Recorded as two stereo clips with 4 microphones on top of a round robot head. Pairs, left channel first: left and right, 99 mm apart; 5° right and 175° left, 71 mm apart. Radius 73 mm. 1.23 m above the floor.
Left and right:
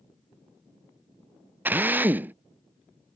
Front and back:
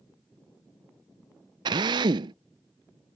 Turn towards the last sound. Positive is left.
turn(degrees=-165)